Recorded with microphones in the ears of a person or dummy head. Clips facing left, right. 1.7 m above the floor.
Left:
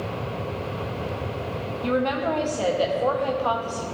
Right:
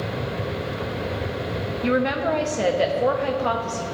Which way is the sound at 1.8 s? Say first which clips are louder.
Right 2 dB; 25° right (ahead or behind).